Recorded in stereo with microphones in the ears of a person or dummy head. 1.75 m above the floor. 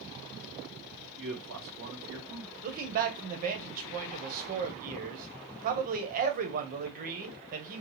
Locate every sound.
1.2 s a man speaking: 65° right (ahead or behind), 1.4 m
2.6 s a man speaking: 50° right (ahead or behind), 1.1 m